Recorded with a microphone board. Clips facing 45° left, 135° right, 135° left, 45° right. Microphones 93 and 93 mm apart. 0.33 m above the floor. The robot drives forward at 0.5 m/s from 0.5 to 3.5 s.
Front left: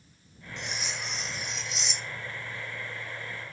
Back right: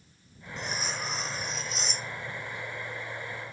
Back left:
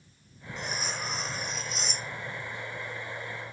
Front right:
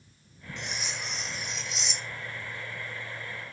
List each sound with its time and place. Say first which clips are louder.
0.6 s cutlery clinking: back right 3 dB, back left 3 dB; straight behind